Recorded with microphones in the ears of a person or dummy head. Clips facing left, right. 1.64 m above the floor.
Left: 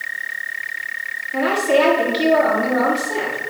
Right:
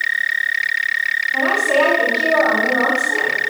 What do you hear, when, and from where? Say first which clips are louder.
1.3 s a woman speaking: left 2 dB; 25° left (ahead or behind), 4 m